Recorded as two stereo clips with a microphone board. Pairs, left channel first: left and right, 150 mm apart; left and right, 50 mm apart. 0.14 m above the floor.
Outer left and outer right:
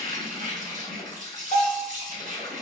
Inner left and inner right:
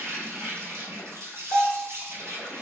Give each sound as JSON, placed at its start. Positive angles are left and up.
{"t": 0.0, "sound": "an insect", "side_deg": -60, "distance_m": 1.4}
{"t": 1.5, "sound": "a bell", "side_deg": -45, "distance_m": 1.8}